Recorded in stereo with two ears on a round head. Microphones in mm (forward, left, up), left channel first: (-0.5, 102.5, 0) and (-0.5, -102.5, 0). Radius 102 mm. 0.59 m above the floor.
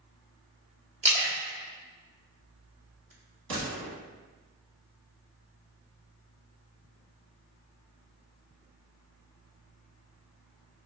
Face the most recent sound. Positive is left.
turn(degrees=-60)  # may be behind; listen again after turning